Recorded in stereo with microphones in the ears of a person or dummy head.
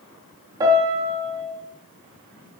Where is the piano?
25° right (ahead or behind), 1.9 m.